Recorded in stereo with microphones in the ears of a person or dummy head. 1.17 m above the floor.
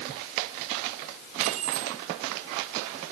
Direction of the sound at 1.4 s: 40° right (ahead or behind).